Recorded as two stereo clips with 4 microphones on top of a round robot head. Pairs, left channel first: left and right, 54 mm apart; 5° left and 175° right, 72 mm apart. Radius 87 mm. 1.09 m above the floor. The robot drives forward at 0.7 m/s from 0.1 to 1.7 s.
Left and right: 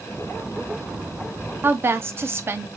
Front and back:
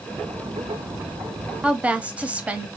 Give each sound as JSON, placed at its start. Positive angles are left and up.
{"t": 1.6, "sound": "a woman speaking", "azimuth_deg": -105, "distance_m": 1.0}